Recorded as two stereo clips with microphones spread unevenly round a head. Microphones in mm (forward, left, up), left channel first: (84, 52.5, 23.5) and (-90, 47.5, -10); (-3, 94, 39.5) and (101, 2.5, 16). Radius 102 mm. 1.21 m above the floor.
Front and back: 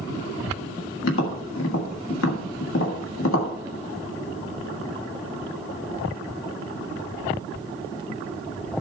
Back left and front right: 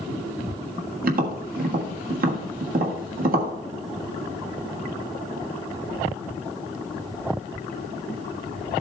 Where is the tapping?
25° right, 1.6 m.